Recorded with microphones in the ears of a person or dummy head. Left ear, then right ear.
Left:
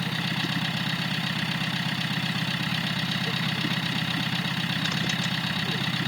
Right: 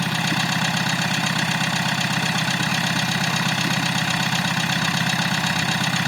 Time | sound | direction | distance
0.0 | an engine running | 40° right (ahead or behind) | ?